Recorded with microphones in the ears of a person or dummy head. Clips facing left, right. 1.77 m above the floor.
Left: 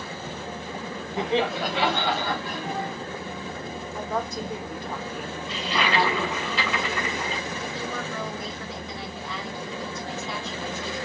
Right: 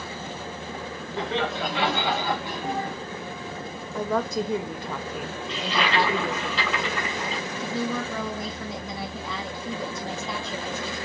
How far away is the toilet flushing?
About 3.5 m.